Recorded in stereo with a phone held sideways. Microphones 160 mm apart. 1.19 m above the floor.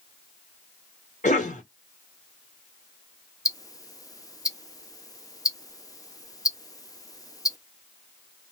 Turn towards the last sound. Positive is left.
turn(degrees=20)  # may be behind; listen again after turning